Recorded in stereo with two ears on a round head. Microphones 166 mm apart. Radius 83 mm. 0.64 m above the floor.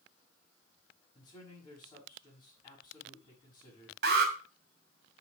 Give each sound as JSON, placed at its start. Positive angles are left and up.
{"t": 1.1, "sound": "a man speaking", "side_deg": 25, "distance_m": 5.5}
{"t": 4.0, "sound": "an alarm", "side_deg": -60, "distance_m": 2.0}